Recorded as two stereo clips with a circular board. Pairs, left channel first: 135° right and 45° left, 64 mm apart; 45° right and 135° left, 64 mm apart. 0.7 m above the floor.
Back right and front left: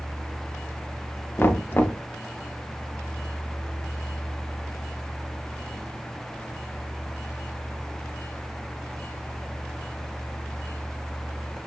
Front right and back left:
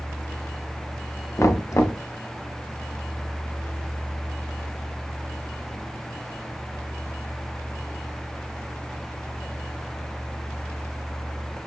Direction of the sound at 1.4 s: 80° right.